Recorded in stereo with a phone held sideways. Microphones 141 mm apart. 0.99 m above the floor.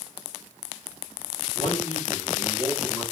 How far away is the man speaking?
About 2 m.